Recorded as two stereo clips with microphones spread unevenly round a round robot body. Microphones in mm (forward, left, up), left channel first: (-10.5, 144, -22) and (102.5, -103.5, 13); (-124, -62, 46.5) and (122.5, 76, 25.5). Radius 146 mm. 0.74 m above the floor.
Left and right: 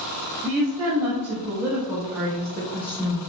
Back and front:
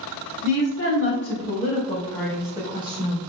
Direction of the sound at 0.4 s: 155° right.